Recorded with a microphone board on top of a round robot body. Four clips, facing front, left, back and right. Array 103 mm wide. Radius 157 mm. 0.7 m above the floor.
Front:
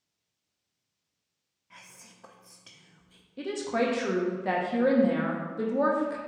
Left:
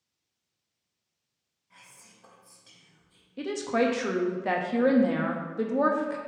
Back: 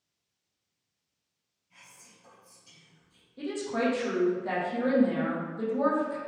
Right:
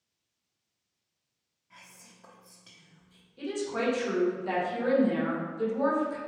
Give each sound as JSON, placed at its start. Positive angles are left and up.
{"t": 1.7, "sound": "whispering", "azimuth_deg": -10, "distance_m": 0.9}
{"t": 3.4, "sound": "a woman speaking", "azimuth_deg": 65, "distance_m": 0.9}